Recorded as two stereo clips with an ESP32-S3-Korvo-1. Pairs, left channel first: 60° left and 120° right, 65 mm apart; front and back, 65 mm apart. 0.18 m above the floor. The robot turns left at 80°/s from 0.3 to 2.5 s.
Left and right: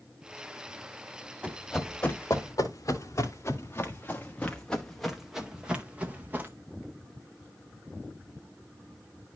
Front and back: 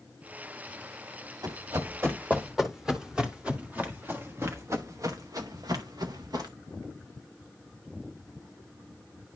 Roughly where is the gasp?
No gasp in this recording.